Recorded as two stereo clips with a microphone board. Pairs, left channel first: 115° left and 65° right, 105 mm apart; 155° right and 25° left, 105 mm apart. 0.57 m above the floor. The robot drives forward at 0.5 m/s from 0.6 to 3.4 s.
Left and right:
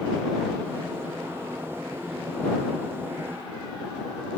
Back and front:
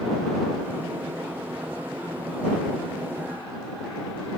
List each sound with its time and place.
Only background noise.